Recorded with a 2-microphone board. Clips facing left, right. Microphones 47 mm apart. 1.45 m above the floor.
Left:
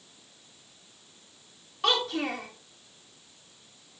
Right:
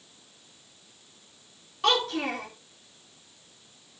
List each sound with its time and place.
1.8 s a child speaking: centre (ahead or behind), 2.5 m